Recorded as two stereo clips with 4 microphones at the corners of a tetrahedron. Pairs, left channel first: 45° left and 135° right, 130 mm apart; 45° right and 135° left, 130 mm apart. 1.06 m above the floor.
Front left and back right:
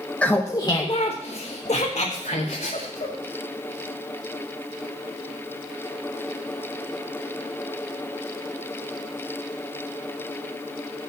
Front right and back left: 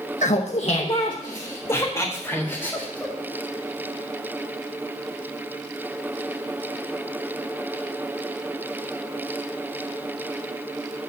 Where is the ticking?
No ticking in this recording.